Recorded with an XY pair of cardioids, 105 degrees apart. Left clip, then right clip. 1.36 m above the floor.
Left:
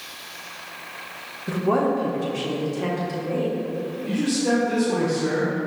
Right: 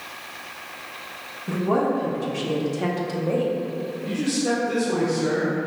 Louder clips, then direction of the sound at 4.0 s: Left 1 dB; 15° right.